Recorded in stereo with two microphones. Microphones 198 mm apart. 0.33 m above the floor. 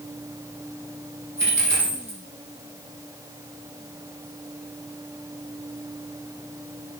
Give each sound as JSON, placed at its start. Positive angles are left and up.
{"t": 1.4, "sound": "a dropped coin", "side_deg": -80, "distance_m": 5.0}